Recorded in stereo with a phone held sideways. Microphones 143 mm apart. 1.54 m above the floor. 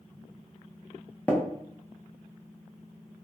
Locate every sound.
1.3 s tapping: 10° left (ahead or behind), 0.5 m